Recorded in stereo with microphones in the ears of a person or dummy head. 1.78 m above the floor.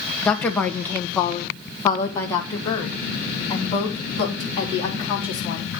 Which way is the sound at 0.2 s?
Centre (ahead or behind).